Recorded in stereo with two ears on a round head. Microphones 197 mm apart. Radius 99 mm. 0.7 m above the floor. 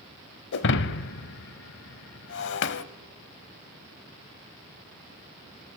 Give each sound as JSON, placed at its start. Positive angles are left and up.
{"t": 0.5, "sound": "breaking glass", "side_deg": 55, "distance_m": 0.7}